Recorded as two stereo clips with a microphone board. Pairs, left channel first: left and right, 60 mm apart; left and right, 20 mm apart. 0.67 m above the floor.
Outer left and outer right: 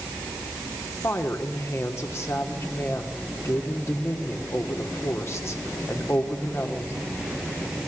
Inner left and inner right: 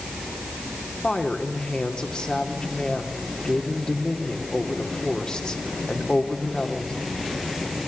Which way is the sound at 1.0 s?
45° left (ahead or behind).